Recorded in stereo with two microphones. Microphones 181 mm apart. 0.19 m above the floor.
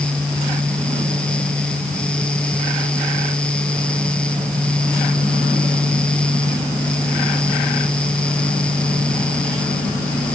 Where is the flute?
I don't hear a flute.